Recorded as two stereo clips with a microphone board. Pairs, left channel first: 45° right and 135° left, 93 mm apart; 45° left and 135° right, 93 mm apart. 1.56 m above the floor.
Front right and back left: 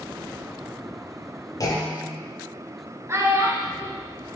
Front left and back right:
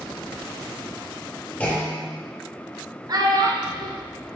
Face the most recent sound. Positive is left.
turn(degrees=-170)